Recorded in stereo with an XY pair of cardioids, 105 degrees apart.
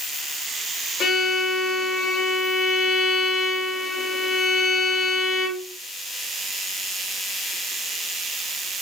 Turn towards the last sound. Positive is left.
turn(degrees=60)